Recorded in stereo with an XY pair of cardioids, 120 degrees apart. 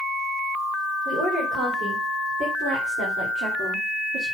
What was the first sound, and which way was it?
A woman speaking, 60° right.